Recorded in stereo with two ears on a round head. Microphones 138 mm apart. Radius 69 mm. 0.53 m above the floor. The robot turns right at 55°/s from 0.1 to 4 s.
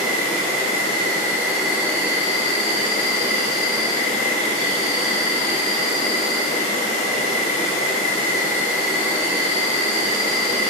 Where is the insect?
90° right, 0.8 m; by 10.7 s 125° left, 0.8 m.